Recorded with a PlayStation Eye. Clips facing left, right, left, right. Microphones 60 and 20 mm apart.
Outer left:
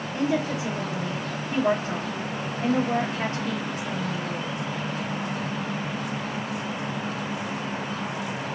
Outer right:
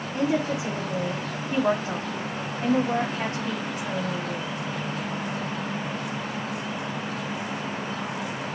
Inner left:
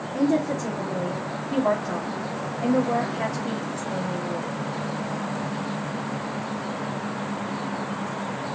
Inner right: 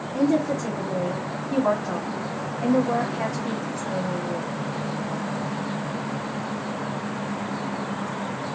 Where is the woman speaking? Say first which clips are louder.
Outer right 1 dB, inner right 1 dB; 30° right (ahead or behind), 2.5 m.